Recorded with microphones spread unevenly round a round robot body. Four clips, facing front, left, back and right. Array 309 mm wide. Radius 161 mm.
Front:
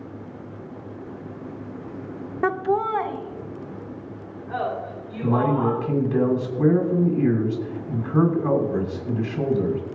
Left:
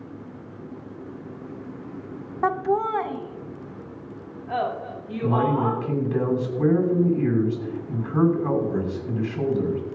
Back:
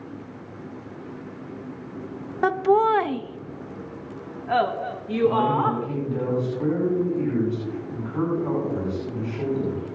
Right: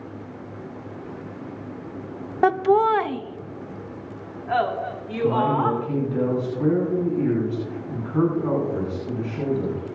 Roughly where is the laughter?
Right.